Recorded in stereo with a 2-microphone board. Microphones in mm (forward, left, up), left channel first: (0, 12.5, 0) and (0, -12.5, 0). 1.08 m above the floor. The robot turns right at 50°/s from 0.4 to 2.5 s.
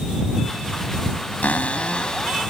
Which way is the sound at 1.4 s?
110° left.